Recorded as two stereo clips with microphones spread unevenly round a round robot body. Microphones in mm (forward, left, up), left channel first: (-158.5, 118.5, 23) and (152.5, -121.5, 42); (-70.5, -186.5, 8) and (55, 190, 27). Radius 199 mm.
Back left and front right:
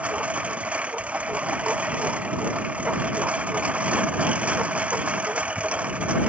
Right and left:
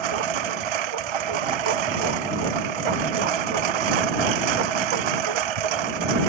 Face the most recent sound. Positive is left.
turn(degrees=50)